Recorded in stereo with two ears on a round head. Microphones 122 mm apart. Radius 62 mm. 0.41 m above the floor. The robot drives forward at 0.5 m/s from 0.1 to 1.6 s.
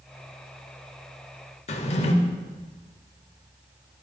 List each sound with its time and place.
1.7 s a drawer: 50° left (ahead or behind), 0.8 m